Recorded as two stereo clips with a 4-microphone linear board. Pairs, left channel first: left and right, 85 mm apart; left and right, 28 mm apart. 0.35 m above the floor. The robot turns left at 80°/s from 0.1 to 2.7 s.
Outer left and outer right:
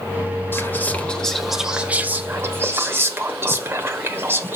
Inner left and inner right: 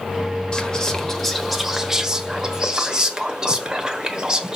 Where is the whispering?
25° left (ahead or behind), 1.1 m; by 4.6 s 25° right (ahead or behind), 1.1 m.